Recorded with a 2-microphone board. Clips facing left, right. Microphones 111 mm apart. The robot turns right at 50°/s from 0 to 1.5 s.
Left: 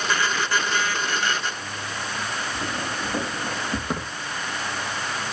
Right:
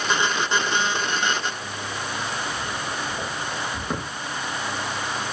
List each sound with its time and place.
2.5 s footsteps: 80° left, 8 m; by 3.8 s 75° left (ahead or behind), 9 m
3.9 s a thud: 10° left (ahead or behind), 7.5 m